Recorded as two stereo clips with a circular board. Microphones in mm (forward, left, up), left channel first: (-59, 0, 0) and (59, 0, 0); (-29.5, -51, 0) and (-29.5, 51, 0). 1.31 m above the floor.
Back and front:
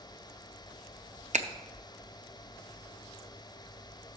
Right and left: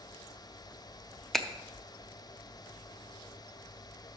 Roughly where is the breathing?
I don't hear breathing.